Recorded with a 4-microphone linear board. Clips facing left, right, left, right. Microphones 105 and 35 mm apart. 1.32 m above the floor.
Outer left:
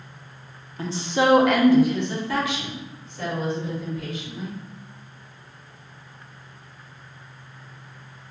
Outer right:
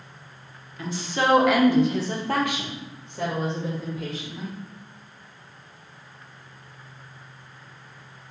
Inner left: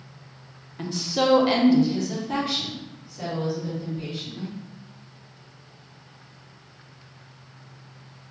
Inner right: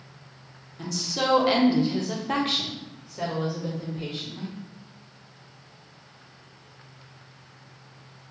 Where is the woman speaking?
35° left (ahead or behind), 0.7 m; by 4.5 s 80° right, 2.0 m.